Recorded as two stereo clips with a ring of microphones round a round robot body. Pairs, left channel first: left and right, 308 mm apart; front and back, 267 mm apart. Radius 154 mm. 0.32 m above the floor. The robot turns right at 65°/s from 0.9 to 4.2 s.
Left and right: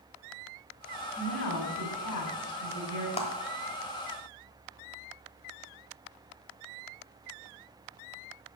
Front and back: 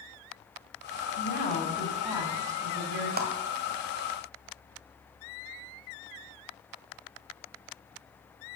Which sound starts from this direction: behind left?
A clap, at 3.2 s.